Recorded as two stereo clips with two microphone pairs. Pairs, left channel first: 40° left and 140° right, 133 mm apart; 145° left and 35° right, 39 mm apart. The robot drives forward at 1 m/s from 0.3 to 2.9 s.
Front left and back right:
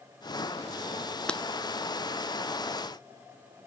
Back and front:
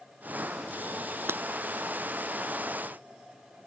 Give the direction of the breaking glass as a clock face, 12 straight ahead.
1 o'clock.